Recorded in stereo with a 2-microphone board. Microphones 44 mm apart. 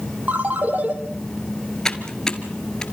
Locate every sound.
0.3 s a ringtone: 40° right (ahead or behind), 2.5 m
1.9 s typing on a keyboard: 15° left (ahead or behind), 1.4 m